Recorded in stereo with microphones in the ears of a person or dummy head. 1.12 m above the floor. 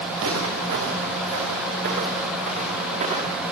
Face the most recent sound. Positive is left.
turn(degrees=-35)  # may be behind; listen again after turning